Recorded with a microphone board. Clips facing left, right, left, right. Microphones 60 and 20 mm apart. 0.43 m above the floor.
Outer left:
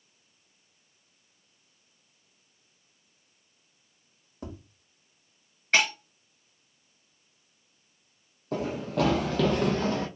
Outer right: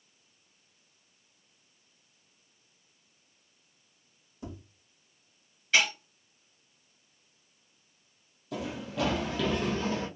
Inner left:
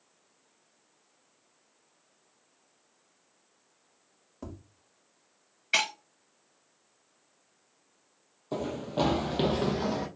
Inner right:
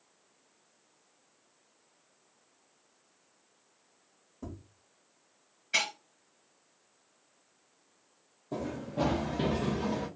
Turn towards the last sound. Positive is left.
turn(degrees=55)  # may be behind; listen again after turning